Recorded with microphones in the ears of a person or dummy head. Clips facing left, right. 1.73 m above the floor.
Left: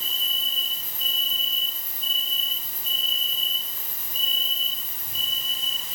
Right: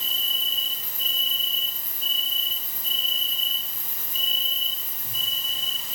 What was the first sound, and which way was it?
An insect, 50° right (ahead or behind).